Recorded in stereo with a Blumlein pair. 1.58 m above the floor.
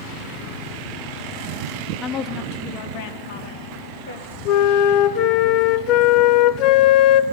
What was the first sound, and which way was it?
A woman speaking, 20° left.